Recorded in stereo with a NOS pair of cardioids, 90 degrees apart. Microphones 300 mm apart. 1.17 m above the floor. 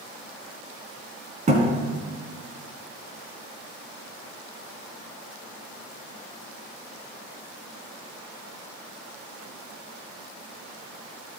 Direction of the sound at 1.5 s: 25° right.